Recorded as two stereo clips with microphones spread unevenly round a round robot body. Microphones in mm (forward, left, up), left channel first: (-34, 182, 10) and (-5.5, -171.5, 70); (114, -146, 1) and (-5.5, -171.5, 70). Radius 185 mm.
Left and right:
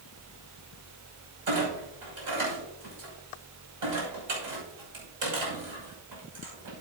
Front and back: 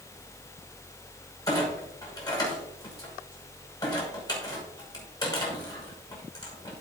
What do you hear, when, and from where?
1.5 s a clunk: 45° right, 6 m